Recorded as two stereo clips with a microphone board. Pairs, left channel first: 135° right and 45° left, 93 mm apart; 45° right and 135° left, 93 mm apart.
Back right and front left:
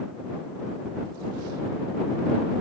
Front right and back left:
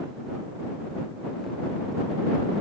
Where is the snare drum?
I don't hear a snare drum.